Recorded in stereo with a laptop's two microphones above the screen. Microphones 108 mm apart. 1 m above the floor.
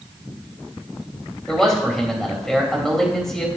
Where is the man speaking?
5° left (ahead or behind), 3.5 m.